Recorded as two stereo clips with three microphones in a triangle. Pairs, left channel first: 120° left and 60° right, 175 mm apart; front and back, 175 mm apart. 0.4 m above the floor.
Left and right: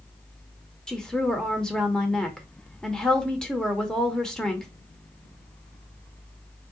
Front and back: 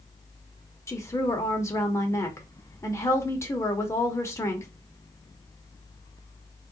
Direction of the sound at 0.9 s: 40° left.